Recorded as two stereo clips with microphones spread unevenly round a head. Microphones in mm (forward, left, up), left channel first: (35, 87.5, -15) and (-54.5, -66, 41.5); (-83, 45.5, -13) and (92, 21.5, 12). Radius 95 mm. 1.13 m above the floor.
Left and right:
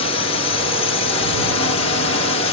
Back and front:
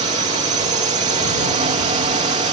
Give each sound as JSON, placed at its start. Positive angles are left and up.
{"t": 0.0, "sound": "a drone", "azimuth_deg": 40}